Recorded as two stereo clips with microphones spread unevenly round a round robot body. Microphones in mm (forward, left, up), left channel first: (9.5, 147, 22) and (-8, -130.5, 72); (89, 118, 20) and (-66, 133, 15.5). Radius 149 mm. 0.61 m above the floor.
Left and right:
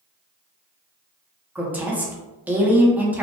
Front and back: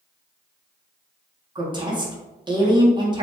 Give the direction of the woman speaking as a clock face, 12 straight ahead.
6 o'clock.